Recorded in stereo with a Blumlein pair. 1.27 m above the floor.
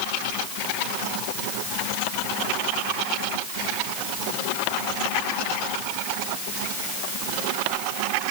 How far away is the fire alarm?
I don't hear a fire alarm.